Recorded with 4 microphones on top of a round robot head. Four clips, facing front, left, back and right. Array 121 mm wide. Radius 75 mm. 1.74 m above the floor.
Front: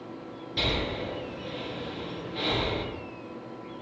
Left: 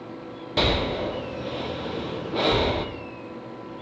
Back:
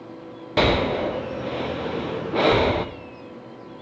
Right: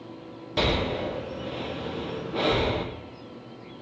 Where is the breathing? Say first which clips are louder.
Left 2 dB, back 11 dB; 170° left, 0.5 m.